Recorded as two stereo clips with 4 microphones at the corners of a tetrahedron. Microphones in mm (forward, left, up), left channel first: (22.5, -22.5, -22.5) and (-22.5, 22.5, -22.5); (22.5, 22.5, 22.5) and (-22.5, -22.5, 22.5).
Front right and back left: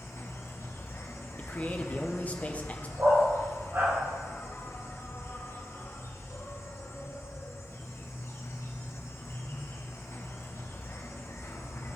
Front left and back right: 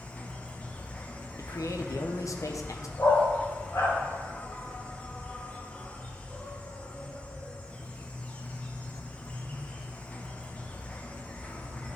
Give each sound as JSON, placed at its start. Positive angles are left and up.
{"t": 0.0, "sound": "an insect", "azimuth_deg": -20, "distance_m": 0.9}
{"t": 1.4, "sound": "a man speaking", "azimuth_deg": 20, "distance_m": 1.0}
{"t": 3.0, "sound": "a dog barking", "azimuth_deg": 90, "distance_m": 3.5}